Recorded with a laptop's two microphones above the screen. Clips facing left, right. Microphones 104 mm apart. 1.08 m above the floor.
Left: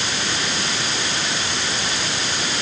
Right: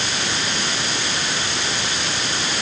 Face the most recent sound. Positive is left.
No sound to turn to.